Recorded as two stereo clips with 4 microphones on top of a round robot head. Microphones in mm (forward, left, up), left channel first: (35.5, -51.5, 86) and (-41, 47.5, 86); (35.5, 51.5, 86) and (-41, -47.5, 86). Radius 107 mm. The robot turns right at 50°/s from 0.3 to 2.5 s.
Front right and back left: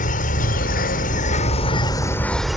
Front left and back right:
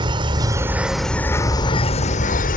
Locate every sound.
0.0 s an insect: 70° right; by 2.6 s 40° left